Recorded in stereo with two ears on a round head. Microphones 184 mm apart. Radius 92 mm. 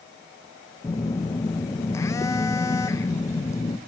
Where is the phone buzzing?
15° left (ahead or behind), 0.7 m.